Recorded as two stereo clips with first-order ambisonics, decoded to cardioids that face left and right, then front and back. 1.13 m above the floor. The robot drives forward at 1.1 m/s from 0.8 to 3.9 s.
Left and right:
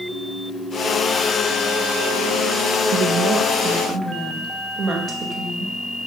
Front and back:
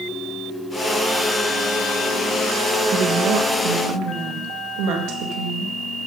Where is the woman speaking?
125° right, 1.0 m; by 5.7 s 155° right, 1.8 m.